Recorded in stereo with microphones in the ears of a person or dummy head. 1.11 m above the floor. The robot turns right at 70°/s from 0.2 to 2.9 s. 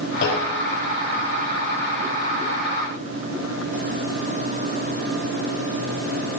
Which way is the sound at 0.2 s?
85° left.